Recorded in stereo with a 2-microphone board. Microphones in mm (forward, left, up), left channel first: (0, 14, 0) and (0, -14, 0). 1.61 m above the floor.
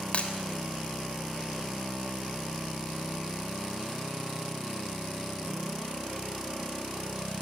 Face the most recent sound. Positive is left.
turn(degrees=50)  # may be behind; listen again after turning